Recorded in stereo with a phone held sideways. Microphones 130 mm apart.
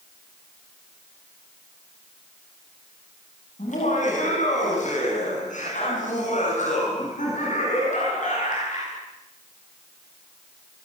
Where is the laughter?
75° left (ahead or behind), 9 m; by 9.0 s 85° left, 14.5 m.